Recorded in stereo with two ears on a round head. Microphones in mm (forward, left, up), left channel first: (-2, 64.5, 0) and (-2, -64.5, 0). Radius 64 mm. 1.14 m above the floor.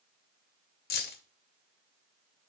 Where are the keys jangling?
70° left (ahead or behind), 1.0 m.